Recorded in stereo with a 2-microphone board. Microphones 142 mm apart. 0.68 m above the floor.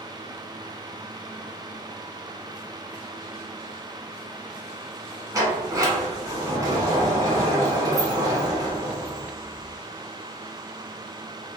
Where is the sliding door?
25° right (ahead or behind), 0.9 m.